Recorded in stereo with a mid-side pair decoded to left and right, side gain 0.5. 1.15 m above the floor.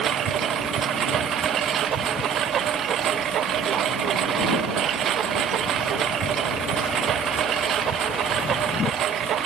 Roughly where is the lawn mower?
Ahead right.